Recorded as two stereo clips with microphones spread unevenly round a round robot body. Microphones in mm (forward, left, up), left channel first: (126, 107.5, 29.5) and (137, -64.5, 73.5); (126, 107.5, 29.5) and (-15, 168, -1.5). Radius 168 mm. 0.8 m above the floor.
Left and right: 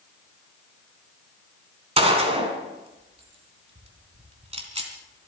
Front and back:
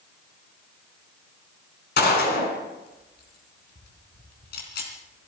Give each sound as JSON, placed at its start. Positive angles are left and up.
{"t": 2.0, "sound": "a gunshot", "azimuth_deg": -35, "distance_m": 3.0}